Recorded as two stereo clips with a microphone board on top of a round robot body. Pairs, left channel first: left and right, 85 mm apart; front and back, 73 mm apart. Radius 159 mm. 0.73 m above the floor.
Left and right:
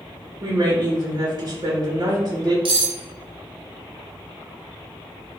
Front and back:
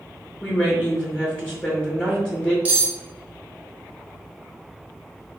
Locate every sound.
0.4 s a woman speaking: 75° right, 0.8 m
2.6 s cutlery clinking: 110° right, 0.7 m